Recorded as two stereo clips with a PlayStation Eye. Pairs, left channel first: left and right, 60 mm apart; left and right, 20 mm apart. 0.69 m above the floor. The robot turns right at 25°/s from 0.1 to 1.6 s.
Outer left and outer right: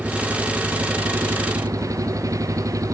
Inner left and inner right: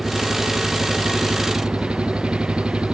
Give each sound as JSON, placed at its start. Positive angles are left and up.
{"t": 0.0, "sound": "an engine running", "azimuth_deg": -155}